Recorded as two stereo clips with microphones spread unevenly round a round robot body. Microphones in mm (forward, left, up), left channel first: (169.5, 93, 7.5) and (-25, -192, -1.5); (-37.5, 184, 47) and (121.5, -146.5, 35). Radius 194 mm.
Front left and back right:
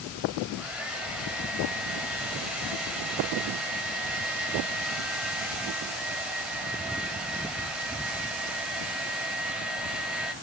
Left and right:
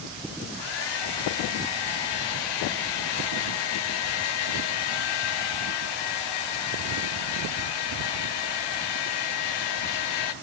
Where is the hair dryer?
150° left, 0.7 m.